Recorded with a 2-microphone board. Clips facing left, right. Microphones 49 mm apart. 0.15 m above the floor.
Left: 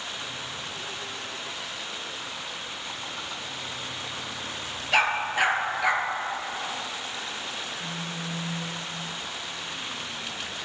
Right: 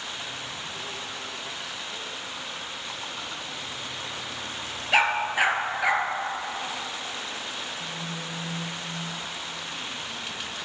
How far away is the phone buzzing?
About 2 m.